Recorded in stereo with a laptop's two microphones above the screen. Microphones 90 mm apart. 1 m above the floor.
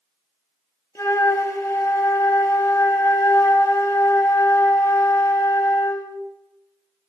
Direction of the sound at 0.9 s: 35° left (ahead or behind).